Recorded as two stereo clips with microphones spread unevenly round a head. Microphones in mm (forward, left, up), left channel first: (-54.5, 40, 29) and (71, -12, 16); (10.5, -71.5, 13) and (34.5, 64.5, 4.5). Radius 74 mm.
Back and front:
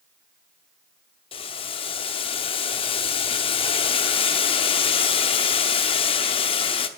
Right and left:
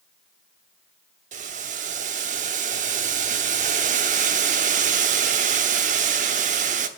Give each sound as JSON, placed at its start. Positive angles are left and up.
{"t": 1.3, "sound": "boiling", "azimuth_deg": 115, "distance_m": 0.9}